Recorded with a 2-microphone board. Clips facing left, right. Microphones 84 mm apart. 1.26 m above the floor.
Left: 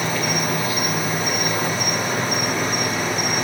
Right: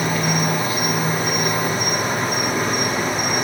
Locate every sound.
0.0 s an insect: 40° right (ahead or behind), 1.5 m